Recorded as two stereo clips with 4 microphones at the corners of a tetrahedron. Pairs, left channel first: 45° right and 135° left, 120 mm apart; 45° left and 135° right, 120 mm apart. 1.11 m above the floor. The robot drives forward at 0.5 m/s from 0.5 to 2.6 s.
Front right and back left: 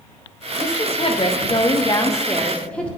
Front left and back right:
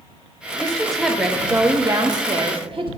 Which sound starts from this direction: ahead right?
A woman speaking, at 0.6 s.